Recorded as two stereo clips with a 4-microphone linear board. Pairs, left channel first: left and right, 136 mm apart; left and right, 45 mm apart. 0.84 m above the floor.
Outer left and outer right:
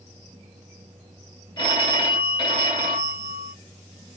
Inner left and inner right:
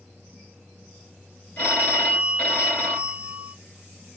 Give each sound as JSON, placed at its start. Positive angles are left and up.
{"t": 1.6, "sound": "a phone ringing", "side_deg": 35, "distance_m": 3.0}